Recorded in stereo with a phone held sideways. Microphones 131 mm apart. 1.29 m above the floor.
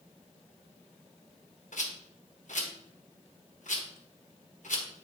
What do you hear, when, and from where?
1.7 s a rattle: 70° left (ahead or behind), 1.1 m